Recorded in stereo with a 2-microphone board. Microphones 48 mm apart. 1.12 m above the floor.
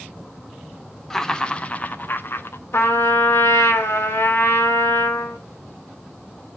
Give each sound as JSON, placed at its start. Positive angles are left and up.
{"t": 1.1, "sound": "laughter", "side_deg": 10, "distance_m": 0.9}
{"t": 2.7, "sound": "a trumpet", "side_deg": 85, "distance_m": 1.5}